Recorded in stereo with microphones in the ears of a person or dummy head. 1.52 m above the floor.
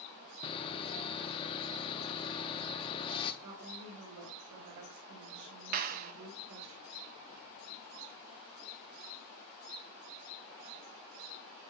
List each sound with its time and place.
0.4 s sawing: 25° left (ahead or behind), 0.7 m
3.4 s a woman speaking: 65° right (ahead or behind), 3 m
5.7 s a clap: 50° right (ahead or behind), 0.5 m